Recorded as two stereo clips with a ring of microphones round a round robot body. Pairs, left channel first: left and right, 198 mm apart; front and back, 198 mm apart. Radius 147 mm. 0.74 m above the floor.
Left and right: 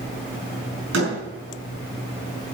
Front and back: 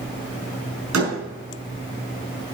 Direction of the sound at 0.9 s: 140° right.